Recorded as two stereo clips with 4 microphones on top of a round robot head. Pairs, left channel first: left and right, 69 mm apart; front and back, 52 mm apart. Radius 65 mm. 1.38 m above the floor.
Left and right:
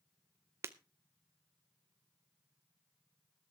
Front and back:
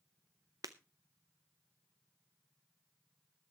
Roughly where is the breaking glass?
Behind right.